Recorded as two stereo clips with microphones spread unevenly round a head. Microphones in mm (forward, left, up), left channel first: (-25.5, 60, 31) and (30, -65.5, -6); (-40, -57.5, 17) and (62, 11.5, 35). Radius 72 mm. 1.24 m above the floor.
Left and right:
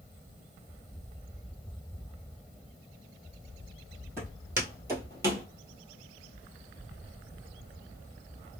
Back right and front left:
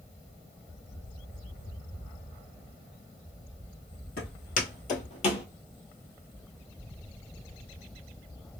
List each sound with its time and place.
4.2 s footsteps: 150° right, 1.9 m; by 5.5 s 145° right, 1.3 m